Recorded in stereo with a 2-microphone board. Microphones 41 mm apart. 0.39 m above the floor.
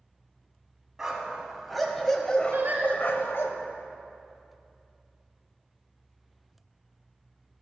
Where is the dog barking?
10° right (ahead or behind), 1.1 m; by 3.5 s 70° left (ahead or behind), 0.7 m.